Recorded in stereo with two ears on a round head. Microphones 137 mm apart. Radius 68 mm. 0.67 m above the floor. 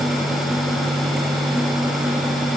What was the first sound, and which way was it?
Only background noise.